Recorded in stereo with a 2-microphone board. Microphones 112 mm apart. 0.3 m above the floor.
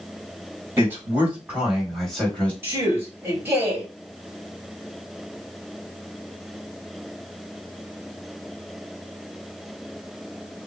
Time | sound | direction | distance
0.8 | a man speaking | 20° right (ahead or behind) | 1.8 m
2.6 | a man speaking | 20° right (ahead or behind) | 1.7 m